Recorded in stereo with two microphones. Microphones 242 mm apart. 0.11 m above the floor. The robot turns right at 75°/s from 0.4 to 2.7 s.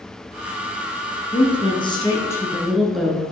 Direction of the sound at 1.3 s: 20° left (ahead or behind).